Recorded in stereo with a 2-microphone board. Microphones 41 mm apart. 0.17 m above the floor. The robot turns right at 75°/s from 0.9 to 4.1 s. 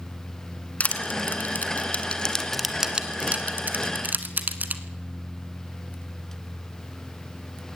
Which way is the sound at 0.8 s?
35° left (ahead or behind).